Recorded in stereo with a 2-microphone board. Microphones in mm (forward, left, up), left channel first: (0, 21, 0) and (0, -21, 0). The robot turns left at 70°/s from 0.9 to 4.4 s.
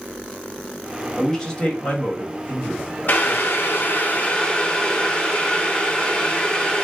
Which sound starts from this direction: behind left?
Boiling, at 3.1 s.